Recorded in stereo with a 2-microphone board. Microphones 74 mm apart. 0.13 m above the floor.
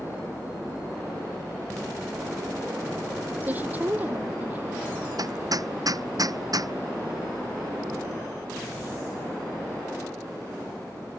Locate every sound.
3.4 s a woman speaking: 25° right (ahead or behind)
5.2 s hammering: 55° right (ahead or behind)